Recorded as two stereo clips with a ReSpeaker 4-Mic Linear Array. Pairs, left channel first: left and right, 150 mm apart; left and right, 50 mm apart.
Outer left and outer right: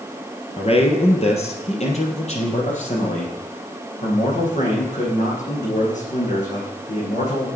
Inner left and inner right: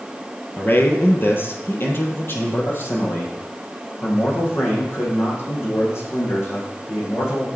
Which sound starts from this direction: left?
A man speaking, at 0.6 s.